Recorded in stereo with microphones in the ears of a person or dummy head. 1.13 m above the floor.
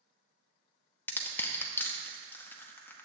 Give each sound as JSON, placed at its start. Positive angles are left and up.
{"t": 1.1, "sound": "crushing", "side_deg": 5, "distance_m": 0.8}